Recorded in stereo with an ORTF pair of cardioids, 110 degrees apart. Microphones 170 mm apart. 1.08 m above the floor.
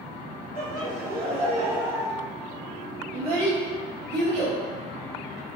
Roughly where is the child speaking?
Right.